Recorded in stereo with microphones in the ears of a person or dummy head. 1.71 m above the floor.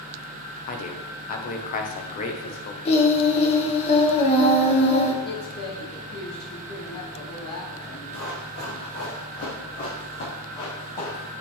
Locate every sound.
0.7 s a man speaking: 45° left (ahead or behind), 1.1 m
2.9 s singing: 35° left (ahead or behind), 1.2 m
5.2 s a woman speaking: 50° left (ahead or behind), 2.5 m
8.1 s running footsteps: 50° left (ahead or behind), 2.5 m; by 11.3 s 40° left (ahead or behind), 4 m